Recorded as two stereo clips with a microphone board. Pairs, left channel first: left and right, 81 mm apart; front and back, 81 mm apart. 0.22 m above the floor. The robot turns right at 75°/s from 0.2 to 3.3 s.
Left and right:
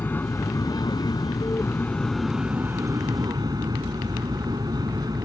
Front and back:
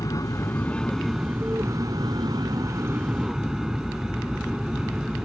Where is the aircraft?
30° left; by 5.3 s 100° right.